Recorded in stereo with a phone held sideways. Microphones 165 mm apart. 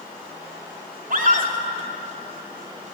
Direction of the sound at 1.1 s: 60° right (ahead or behind).